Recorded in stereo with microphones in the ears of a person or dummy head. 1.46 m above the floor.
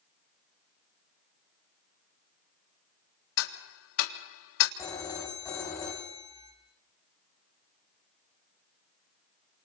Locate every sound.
3.4 s ticking: 80° left, 3 m
4.8 s a phone ringing: 15° left (ahead or behind), 5.5 m